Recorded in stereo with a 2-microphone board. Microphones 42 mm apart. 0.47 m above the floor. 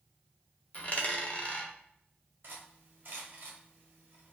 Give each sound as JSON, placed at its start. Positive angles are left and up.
{"t": 0.7, "sound": "a dropped coin", "side_deg": 40, "distance_m": 0.6}
{"t": 2.4, "sound": "cutlery clinking", "side_deg": -55, "distance_m": 1.0}